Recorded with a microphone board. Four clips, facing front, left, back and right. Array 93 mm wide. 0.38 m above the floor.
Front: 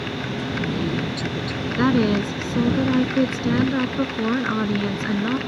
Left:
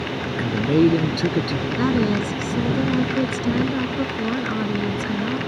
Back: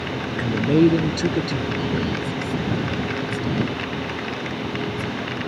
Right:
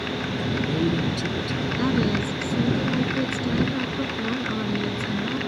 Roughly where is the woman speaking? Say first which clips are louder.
Left 3 dB, front 6 dB; ahead.